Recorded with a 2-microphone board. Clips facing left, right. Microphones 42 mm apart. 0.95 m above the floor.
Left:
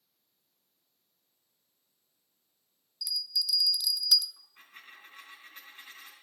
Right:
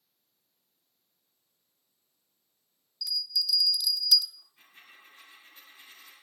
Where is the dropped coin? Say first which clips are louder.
Left 3 dB; 55° left (ahead or behind), 5 m.